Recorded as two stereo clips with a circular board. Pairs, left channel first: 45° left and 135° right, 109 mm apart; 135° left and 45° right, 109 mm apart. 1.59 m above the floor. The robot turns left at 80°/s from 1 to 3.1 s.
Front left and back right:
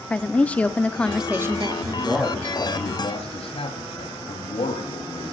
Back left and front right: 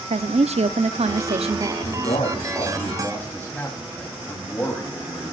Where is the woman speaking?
35° right, 0.9 m; by 1.8 s 95° right, 0.9 m.